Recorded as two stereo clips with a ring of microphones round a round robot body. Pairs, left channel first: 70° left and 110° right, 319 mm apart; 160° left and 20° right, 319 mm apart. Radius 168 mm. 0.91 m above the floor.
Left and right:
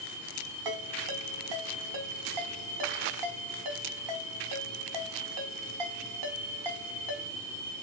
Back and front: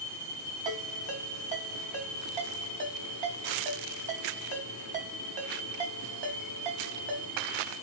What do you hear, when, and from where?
0.7 s a ringtone: 90° right, 3.5 m